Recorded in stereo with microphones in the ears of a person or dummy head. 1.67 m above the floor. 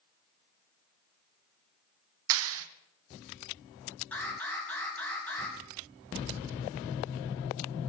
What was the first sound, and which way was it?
A clap, 75° right (ahead or behind).